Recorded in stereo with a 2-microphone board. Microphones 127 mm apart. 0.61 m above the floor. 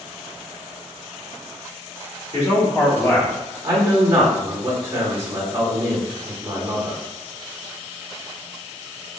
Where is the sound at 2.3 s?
35° left (ahead or behind), 1.3 m; by 3.5 s 10° left (ahead or behind), 0.9 m.